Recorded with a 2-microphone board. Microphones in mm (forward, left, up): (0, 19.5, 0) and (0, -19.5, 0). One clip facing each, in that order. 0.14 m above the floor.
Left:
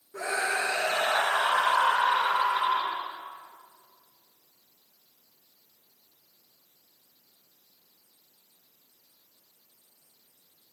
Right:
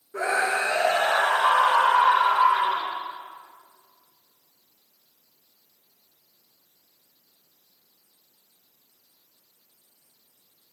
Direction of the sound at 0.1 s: 30° right (ahead or behind).